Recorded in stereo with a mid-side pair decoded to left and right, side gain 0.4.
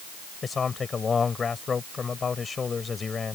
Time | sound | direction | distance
0.4 | a man speaking | 40° left | ?